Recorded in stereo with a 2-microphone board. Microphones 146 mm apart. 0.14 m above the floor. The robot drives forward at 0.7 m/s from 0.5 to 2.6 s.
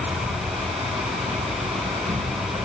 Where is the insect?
65° right (ahead or behind), 5 m; by 2.6 s 55° right (ahead or behind), 6 m.